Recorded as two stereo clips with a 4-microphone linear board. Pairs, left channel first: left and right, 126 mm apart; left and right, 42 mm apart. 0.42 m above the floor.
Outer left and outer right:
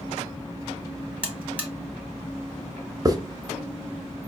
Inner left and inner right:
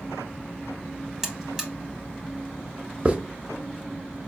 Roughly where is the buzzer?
Centre.